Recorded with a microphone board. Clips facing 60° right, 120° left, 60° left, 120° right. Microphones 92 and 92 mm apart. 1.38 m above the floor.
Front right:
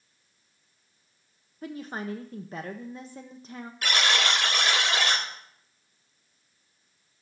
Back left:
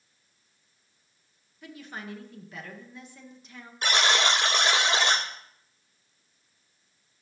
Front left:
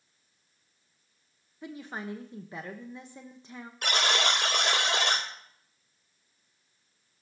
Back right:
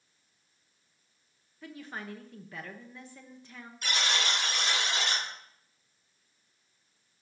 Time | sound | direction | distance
1.6 | a woman speaking | 10° right | 0.9 m
3.8 | a buzzer | 60° left | 2.5 m